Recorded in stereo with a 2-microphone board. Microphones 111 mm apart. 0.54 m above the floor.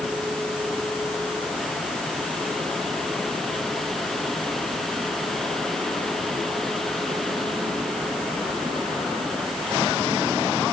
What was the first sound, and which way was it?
Only background noise.